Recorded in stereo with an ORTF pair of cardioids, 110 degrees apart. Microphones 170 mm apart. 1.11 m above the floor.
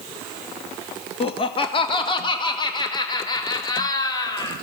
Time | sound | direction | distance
1.2 | laughter | 35° left | 1.4 m